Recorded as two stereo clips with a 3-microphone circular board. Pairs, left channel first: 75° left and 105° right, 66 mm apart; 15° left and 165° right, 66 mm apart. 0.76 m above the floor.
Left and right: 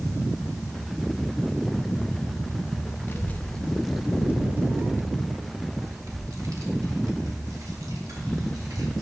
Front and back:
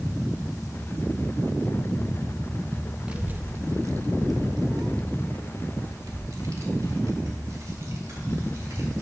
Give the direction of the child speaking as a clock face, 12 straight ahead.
8 o'clock.